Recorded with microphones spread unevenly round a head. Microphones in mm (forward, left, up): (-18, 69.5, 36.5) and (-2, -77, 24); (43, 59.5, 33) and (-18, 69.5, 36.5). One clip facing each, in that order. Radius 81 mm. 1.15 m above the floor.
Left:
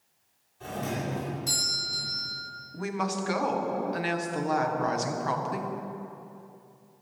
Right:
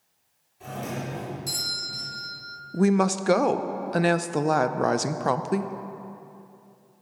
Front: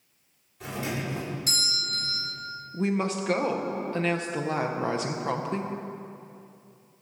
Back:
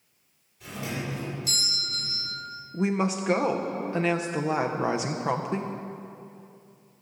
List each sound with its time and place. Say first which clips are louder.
0.6 s a doorbell: left 1 dB, front 2 dB; straight ahead, 4 m
2.7 s a woman speaking: right 10 dB, back 1 dB; 110° right, 0.5 m